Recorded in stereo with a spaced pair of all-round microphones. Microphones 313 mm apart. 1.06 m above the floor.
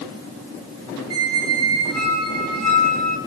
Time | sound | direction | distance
1.1 | a squeak | 50° right (ahead or behind) | 1.5 m